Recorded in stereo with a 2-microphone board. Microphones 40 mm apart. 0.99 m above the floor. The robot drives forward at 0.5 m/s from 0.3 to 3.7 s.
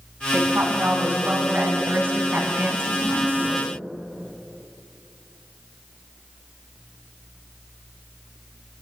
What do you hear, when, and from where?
0.3 s a woman speaking: 60° right (ahead or behind), 6.5 m; by 3.7 s 50° right (ahead or behind), 7.5 m